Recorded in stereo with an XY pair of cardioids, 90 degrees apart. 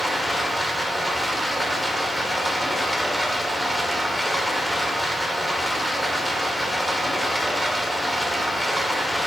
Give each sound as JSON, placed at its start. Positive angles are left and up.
{"t": 0.0, "sound": "running water", "azimuth_deg": 5, "distance_m": 2.0}